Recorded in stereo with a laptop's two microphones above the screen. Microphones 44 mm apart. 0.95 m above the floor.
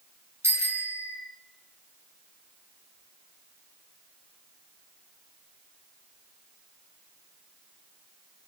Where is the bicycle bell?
80° right, 6.5 m.